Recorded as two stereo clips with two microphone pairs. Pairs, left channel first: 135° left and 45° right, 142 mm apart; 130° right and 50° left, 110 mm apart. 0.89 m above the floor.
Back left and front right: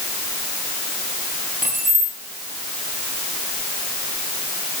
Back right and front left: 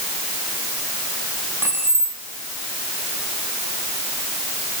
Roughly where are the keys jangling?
Ahead.